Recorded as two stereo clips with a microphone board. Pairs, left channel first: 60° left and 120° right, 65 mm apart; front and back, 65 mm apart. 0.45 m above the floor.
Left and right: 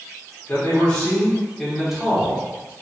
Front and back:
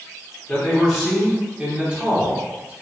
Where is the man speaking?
90° left, 1.3 m; by 2.7 s 145° right, 1.3 m.